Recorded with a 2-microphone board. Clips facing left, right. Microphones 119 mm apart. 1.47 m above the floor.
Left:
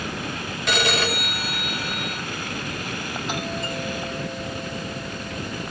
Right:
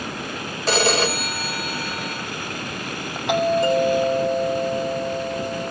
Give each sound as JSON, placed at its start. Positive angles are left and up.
{"t": 0.7, "sound": "a phone ringing", "side_deg": -35, "distance_m": 4.0}
{"t": 3.3, "sound": "a doorbell", "side_deg": -70, "distance_m": 5.0}